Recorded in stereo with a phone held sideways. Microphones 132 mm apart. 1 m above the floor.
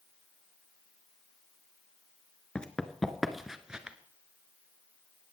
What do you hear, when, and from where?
2.5 s running footsteps: 10° left (ahead or behind), 0.9 m; by 4.0 s 10° right (ahead or behind), 1.0 m